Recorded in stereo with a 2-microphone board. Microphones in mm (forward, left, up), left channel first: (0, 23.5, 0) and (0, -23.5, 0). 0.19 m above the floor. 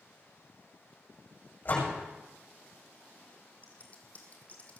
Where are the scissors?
30° left (ahead or behind), 2.5 m.